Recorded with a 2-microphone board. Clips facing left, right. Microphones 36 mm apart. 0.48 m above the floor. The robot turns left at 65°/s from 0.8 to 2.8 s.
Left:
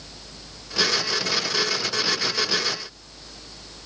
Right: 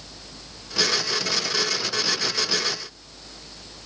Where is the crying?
I don't hear crying.